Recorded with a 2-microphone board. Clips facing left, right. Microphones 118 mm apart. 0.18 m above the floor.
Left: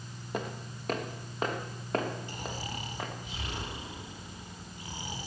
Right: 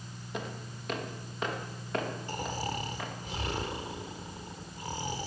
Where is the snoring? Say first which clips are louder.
Right 4 dB; 40° right (ahead or behind), 2 m.